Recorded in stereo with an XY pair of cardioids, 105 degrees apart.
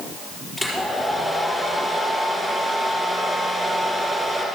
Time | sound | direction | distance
0.6 | a hair dryer | 5° left | 4 m